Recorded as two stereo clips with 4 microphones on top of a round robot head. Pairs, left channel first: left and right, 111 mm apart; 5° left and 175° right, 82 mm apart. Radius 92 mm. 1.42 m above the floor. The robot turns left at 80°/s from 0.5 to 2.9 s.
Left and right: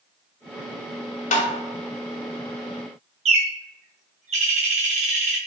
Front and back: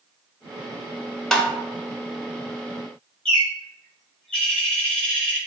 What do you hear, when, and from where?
1.3 s tapping: 90° left, 0.7 m; by 1.5 s 75° left, 0.7 m
3.2 s a bird: 80° right, 0.6 m